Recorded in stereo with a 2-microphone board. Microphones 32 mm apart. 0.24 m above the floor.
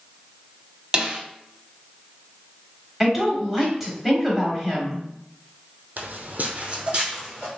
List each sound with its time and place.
0.9 s a snare drum: 30° right (ahead or behind), 0.6 m
3.0 s a woman speaking: 5° right (ahead or behind), 1.0 m
6.0 s footsteps: 70° right (ahead or behind), 0.5 m; by 7.5 s 25° right (ahead or behind), 1.1 m